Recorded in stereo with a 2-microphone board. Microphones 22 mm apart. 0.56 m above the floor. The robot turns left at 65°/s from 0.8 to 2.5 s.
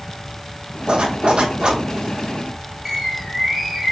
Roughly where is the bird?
Centre.